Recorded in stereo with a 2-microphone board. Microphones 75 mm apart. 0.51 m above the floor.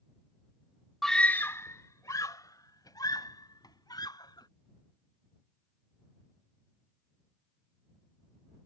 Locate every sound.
1.0 s a scream: centre (ahead or behind); by 4.5 s 65° left (ahead or behind)